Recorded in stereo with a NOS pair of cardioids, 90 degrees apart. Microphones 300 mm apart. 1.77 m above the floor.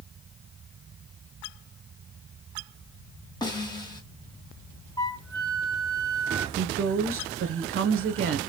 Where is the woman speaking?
50° right, 1.5 m.